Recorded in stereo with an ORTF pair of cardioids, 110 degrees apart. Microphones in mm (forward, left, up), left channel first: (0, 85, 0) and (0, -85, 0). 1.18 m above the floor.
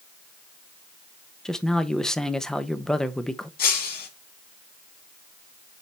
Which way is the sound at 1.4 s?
5° left.